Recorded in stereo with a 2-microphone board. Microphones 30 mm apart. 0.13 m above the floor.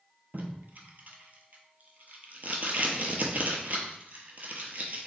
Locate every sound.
0.3 s tape being pulled: 55° right (ahead or behind), 0.6 m